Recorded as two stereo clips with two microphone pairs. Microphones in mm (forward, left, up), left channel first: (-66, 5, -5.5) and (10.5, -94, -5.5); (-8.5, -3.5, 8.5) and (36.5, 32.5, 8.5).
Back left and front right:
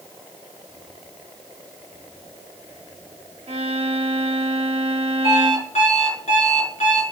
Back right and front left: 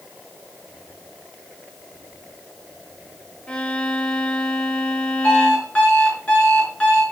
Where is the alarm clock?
150° left, 5 m.